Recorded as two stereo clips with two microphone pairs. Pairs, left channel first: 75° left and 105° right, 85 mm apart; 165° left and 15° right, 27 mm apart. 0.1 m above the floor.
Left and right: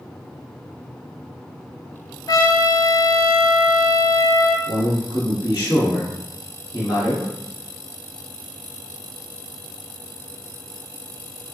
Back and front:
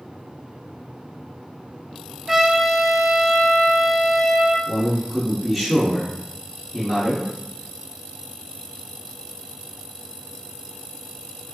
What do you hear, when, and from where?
2.3 s a trumpet: 65° left, 0.7 m
4.7 s a man speaking: 85° left, 1.3 m